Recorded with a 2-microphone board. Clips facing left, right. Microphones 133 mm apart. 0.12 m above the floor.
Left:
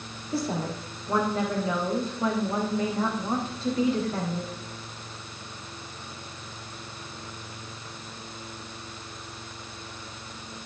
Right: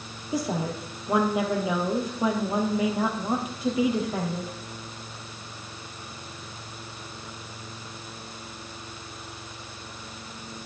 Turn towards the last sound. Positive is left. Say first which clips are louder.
# right 1 dB
turn(degrees=-15)  # may be behind; listen again after turning